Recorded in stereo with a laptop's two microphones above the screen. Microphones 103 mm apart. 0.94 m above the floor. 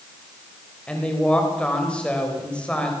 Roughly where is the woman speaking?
Centre.